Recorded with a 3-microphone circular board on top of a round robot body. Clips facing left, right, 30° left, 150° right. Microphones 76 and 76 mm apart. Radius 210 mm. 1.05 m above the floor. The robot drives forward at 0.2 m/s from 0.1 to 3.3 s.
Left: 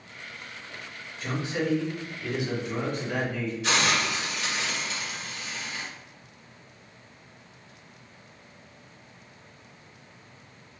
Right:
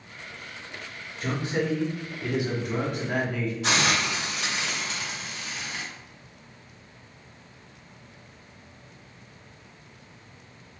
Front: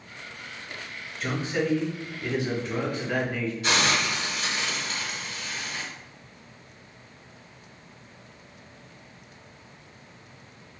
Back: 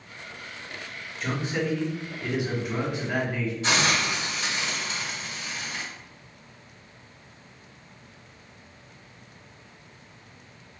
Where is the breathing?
No breathing in this recording.